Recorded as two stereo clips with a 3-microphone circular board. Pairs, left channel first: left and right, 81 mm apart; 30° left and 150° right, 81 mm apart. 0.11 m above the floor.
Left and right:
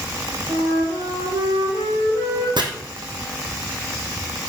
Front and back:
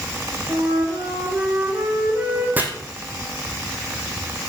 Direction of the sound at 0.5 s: 80° right.